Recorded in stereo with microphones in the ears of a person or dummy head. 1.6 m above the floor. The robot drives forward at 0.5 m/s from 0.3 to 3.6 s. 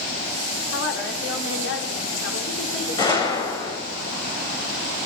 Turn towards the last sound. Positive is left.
turn(degrees=20)  # may be behind; listen again after turning